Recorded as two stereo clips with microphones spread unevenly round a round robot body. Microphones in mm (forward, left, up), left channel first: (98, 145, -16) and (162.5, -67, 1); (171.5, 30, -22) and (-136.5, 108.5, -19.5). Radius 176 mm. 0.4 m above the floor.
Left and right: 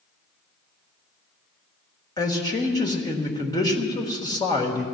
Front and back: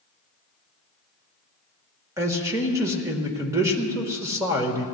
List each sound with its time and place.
2.2 s a man speaking: 105° left, 1.4 m